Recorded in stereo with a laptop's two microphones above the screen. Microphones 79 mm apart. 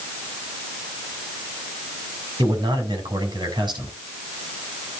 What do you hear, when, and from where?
2.4 s a man speaking: 65° right (ahead or behind), 5.5 m